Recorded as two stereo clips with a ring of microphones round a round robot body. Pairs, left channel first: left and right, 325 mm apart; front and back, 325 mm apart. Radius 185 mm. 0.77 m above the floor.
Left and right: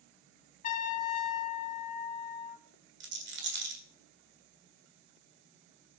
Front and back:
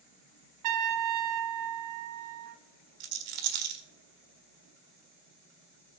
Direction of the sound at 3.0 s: 150° right.